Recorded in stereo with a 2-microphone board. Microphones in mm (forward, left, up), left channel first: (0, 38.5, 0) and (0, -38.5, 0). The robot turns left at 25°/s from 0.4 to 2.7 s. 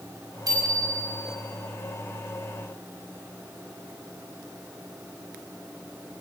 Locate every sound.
0.5 s a bicycle bell: 55° right (ahead or behind), 5.5 m; by 1.3 s 75° right (ahead or behind), 5.5 m